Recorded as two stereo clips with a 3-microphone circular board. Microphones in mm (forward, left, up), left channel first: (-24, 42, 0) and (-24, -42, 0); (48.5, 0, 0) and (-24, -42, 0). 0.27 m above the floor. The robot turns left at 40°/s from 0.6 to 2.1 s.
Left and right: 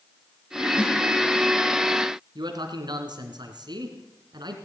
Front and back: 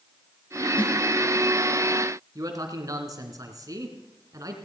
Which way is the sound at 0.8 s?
30° left.